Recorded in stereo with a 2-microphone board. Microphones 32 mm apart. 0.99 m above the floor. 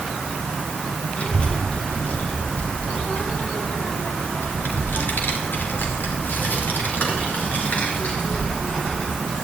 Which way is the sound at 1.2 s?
40° left (ahead or behind).